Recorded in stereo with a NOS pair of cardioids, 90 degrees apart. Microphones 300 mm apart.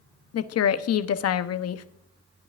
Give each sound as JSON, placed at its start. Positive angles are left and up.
{"t": 0.3, "sound": "a woman speaking", "azimuth_deg": 50, "distance_m": 0.9}